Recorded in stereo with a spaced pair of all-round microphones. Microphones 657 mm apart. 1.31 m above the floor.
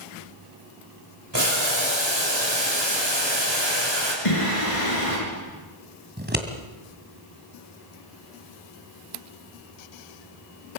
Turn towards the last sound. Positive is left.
turn(degrees=-15)  # may be behind; listen again after turning